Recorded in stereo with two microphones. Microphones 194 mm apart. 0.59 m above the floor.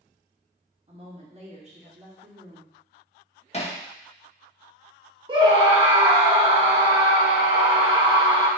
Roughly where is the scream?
Right.